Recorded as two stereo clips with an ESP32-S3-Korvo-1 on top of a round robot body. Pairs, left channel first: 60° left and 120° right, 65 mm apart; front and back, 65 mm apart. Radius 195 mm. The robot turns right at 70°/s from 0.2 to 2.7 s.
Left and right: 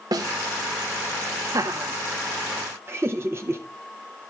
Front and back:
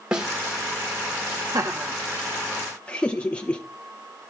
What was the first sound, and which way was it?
A snare drum, 100° right.